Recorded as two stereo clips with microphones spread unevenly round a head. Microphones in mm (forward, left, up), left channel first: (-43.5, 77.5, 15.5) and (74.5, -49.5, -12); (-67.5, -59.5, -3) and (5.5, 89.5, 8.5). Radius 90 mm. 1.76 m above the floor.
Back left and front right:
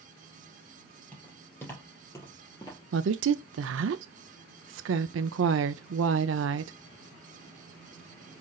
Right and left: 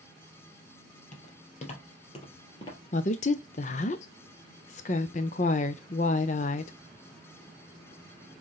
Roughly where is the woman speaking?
Ahead right.